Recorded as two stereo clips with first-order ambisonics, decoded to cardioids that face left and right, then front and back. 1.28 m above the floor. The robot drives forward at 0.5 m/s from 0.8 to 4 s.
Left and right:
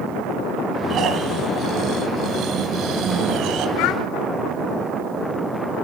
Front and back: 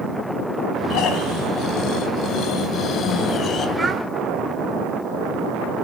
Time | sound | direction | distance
0.9 | snoring | 40° right | 3.5 m
3.8 | a child speaking | 100° left | 2.5 m